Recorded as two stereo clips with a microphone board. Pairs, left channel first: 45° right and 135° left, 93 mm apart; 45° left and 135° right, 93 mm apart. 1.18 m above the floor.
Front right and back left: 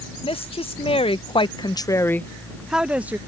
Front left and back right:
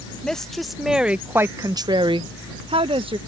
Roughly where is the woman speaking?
Ahead right.